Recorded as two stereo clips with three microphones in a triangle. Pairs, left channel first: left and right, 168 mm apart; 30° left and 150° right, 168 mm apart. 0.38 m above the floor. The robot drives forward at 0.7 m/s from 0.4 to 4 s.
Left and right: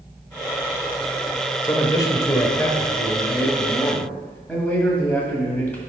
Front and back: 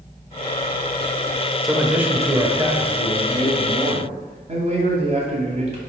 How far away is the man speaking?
About 1.0 m.